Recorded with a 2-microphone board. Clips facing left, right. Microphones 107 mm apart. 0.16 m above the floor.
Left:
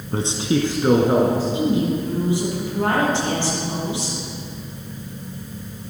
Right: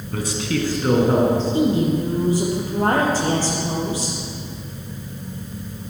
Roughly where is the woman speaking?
Right.